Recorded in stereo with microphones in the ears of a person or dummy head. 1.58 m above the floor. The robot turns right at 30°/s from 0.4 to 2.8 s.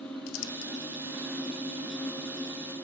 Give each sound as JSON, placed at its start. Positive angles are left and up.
{"t": 0.3, "sound": "crumpling", "side_deg": 75, "distance_m": 1.4}